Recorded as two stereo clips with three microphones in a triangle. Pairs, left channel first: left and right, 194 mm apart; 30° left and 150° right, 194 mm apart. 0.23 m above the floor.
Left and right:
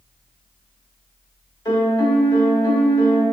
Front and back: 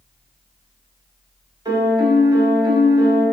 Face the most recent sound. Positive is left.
turn(degrees=155)